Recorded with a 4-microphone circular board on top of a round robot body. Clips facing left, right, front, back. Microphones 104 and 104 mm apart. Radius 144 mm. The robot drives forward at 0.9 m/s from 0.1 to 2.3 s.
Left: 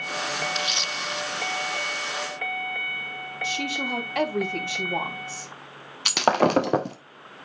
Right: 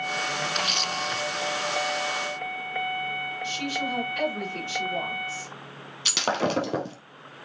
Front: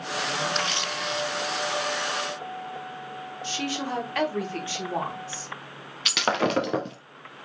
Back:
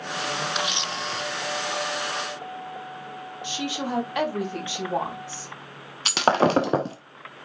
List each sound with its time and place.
0.6 s a camera shutter: 100° right, 0.9 m; by 1.2 s 140° right, 1.1 m
3.4 s a woman speaking: 105° left, 5 m
6.0 s breaking glass: 125° left, 0.6 m